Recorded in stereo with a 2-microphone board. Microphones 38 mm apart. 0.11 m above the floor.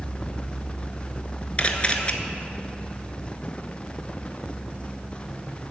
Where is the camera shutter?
30° left (ahead or behind), 0.9 m.